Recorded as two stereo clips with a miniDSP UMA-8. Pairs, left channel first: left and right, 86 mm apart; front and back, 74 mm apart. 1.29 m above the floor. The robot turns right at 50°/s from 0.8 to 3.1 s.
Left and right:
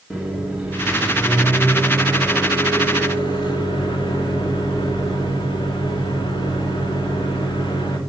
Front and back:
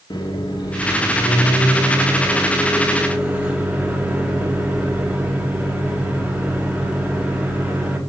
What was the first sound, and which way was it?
A microwave, 10° right.